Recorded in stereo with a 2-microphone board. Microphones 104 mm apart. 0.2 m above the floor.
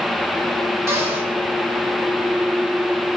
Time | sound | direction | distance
0.9 | a cupboard door | 30° right (ahead or behind) | 2.5 m